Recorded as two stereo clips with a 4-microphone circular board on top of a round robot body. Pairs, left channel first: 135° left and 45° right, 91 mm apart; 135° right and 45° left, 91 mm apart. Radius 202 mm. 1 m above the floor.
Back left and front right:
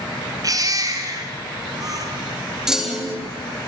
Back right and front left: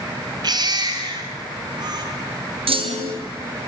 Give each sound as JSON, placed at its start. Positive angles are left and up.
{"t": 0.4, "sound": "a baby crying", "azimuth_deg": 5, "distance_m": 2.5}
{"t": 2.7, "sound": "a clunk", "azimuth_deg": 40, "distance_m": 2.0}